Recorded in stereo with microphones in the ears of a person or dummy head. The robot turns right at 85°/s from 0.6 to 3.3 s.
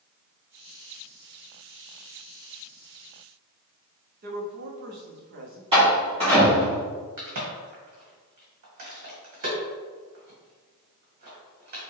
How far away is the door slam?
About 1.4 m.